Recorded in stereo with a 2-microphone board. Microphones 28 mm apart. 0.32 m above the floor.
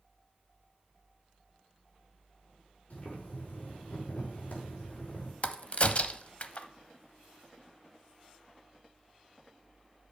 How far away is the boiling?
About 5 m.